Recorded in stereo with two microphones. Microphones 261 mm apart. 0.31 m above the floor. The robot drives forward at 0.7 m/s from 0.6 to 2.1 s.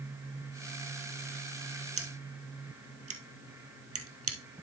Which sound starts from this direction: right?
Scissors, at 2.0 s.